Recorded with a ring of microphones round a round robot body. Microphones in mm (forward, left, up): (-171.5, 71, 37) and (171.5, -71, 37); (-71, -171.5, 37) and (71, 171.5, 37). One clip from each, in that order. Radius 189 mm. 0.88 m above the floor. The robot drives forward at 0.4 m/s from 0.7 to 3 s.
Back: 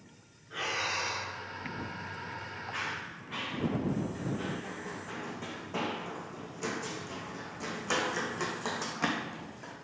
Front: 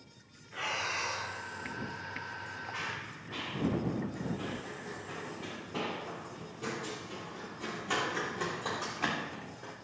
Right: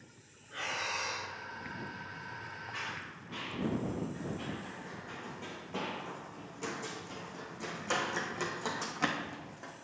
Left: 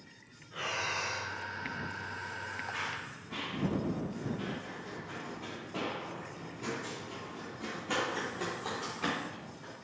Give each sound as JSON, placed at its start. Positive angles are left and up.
{"t": 0.5, "sound": "breathing", "azimuth_deg": -175, "distance_m": 5.0}
{"t": 2.7, "sound": "running footsteps", "azimuth_deg": 165, "distance_m": 4.0}